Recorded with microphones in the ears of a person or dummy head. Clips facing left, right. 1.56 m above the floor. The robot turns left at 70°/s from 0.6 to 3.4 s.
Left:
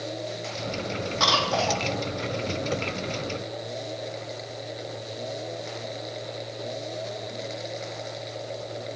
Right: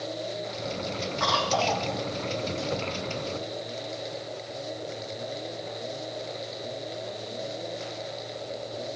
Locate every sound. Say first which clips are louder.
1.2 s a cough: even; 50° left, 1.9 m; by 1.9 s 5° left, 1.9 m